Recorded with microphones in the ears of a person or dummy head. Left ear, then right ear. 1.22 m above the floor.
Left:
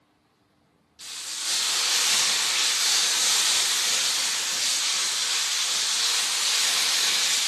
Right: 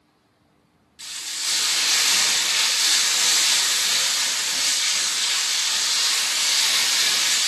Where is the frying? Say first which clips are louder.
Right 4 dB; 15° right (ahead or behind), 1.1 m.